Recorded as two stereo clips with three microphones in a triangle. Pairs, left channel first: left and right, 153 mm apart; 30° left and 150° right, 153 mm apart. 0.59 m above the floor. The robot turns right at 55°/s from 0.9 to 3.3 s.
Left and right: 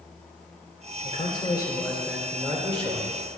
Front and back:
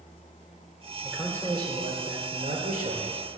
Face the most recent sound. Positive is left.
turn(degrees=-110)